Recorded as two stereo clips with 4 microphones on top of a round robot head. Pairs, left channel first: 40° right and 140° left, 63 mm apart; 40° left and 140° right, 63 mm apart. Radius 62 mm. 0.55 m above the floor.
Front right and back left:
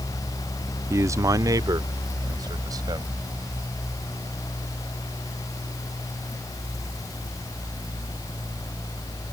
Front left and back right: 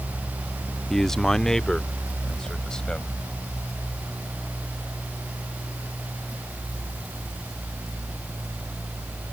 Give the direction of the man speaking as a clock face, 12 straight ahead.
8 o'clock.